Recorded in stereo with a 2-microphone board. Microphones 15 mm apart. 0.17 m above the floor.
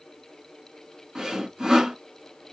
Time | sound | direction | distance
1.1 | sawing | 45° right (ahead or behind) | 1.8 m